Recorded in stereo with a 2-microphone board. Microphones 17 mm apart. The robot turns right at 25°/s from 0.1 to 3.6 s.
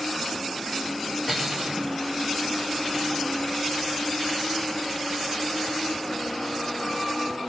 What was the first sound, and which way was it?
Cutlery clinking, 5° right (ahead or behind).